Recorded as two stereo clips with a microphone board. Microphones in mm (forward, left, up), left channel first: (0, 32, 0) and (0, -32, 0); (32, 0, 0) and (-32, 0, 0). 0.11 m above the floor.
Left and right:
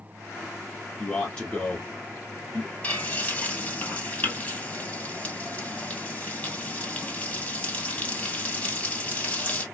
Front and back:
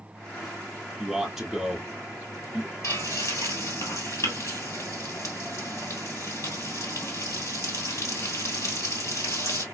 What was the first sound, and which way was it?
A man speaking, 115° left.